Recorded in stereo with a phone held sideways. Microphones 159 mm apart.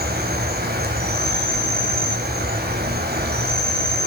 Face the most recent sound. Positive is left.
turn(degrees=-85)